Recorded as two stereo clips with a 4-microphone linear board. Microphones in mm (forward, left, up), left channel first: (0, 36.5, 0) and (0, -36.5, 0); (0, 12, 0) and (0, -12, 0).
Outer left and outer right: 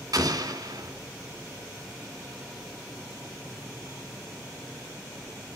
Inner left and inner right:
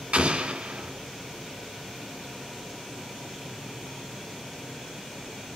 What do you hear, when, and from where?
0.1 s an explosion: 65° right (ahead or behind), 2 m